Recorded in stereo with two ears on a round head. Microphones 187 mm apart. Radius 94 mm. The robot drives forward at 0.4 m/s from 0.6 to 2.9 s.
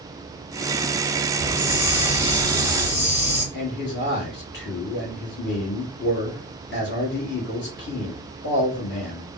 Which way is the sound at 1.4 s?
40° left (ahead or behind).